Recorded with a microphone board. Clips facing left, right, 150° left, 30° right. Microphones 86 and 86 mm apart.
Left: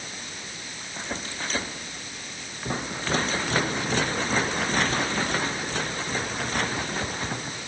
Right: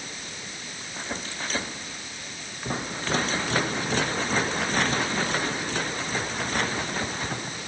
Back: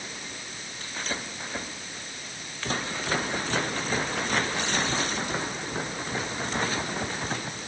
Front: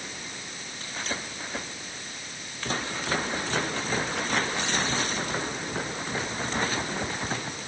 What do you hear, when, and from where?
Only background noise.